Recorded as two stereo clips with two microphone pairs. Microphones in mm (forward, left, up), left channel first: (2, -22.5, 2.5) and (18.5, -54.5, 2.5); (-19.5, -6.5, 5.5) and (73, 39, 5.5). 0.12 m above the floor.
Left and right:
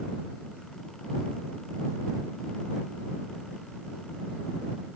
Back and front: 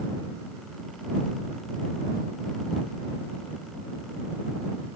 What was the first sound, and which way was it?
Only background noise.